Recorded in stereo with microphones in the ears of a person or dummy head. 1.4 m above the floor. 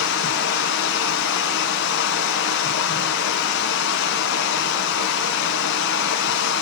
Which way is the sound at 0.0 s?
70° left (ahead or behind).